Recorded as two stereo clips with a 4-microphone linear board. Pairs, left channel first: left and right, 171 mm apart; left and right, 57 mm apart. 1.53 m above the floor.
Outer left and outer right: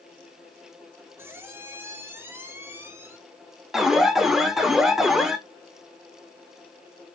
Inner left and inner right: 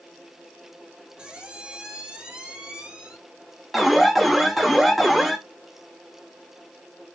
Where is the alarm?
Centre (ahead or behind), 0.6 m.